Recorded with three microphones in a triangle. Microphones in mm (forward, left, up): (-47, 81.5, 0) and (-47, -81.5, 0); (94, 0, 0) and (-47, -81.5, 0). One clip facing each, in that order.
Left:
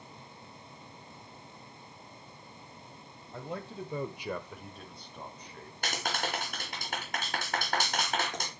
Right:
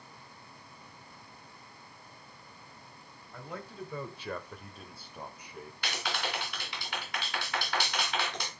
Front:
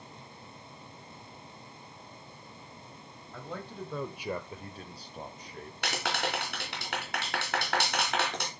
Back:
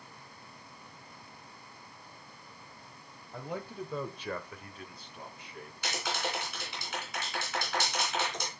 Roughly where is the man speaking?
Behind left.